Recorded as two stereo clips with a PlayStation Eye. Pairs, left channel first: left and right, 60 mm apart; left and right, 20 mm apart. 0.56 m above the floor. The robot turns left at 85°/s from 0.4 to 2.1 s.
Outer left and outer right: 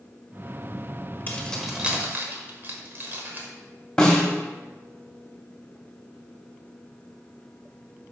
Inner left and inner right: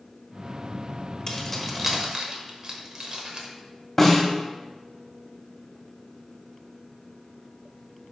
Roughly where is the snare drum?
Centre.